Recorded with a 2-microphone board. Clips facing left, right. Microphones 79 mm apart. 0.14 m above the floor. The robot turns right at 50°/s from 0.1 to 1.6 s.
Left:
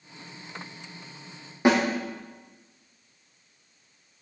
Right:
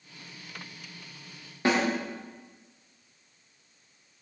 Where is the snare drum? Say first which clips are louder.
Left 5 dB; 20° left (ahead or behind), 5.5 m.